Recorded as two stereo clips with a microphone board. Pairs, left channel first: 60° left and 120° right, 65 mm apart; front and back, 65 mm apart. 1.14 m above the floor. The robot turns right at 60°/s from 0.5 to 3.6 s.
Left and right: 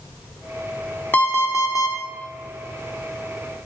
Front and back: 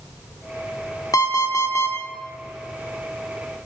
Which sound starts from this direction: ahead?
An alarm clock, at 1.1 s.